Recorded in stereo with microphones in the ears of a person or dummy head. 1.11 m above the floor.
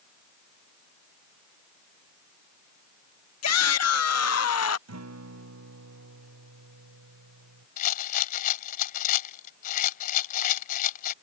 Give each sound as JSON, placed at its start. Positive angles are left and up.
{"t": 3.4, "sound": "a shout", "side_deg": 80}
{"t": 4.9, "sound": "a guitar", "side_deg": -90}
{"t": 7.8, "sound": "a rattle", "side_deg": 50}